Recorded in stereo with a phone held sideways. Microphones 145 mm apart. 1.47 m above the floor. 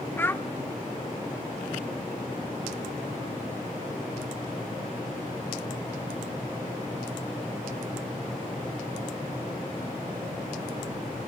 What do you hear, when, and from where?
0.2 s a child speaking: 15° left (ahead or behind), 0.9 m